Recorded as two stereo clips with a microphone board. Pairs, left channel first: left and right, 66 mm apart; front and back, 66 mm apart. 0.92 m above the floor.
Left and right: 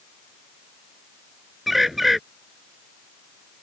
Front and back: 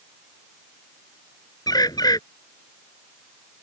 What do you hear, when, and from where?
1.7 s a bird: straight ahead